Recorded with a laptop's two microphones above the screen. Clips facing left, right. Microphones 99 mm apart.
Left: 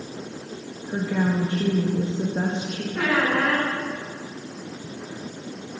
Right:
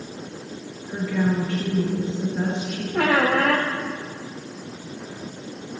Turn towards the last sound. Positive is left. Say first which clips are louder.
# right 3 dB
turn(degrees=-80)